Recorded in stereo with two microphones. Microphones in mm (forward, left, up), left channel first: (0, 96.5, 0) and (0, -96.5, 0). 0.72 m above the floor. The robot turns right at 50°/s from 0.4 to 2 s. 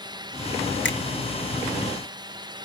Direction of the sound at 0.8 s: 65° left (ahead or behind).